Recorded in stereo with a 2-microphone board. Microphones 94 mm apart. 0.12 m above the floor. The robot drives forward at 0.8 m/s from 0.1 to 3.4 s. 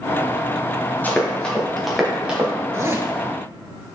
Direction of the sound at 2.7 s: 30° right (ahead or behind).